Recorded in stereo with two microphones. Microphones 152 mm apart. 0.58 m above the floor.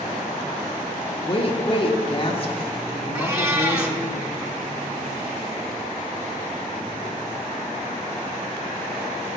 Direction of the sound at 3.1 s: 20° right (ahead or behind).